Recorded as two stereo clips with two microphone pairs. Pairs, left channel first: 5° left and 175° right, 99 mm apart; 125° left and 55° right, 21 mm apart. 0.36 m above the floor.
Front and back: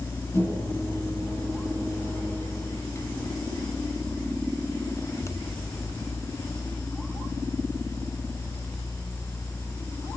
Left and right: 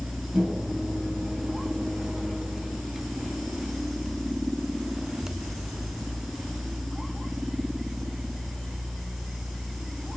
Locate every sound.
0.3 s a microwave: 60° right, 7 m